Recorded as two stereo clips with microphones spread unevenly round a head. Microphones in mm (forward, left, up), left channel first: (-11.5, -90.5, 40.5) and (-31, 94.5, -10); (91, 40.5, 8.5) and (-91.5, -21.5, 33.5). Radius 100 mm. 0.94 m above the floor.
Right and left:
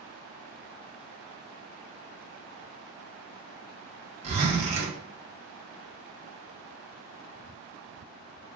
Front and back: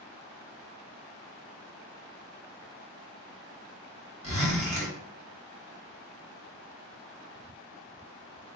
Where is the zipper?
140° left, 1.6 m.